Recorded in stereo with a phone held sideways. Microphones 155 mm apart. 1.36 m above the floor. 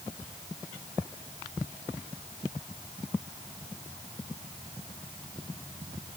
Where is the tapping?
I don't hear tapping.